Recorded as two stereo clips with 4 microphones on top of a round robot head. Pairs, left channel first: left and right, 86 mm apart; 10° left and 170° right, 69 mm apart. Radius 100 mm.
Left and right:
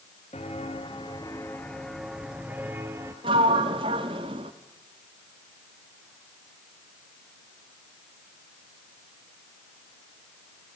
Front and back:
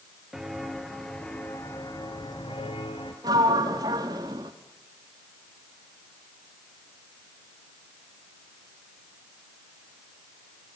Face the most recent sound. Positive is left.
turn(degrees=-125)